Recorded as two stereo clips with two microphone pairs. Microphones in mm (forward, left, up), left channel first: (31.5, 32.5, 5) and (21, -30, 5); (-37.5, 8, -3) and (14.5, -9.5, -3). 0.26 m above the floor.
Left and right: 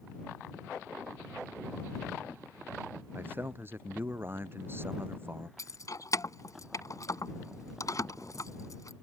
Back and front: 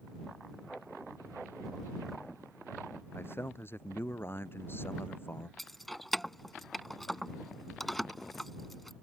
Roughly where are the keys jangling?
Left.